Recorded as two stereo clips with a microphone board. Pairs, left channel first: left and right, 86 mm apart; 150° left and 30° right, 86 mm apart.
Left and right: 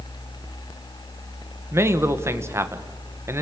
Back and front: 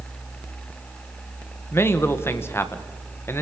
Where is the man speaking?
150° right, 1.4 m.